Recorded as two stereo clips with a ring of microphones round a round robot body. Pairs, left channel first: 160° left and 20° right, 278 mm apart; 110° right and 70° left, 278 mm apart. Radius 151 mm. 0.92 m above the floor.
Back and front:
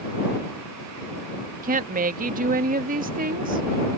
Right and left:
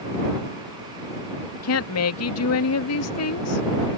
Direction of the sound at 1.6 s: 85° right.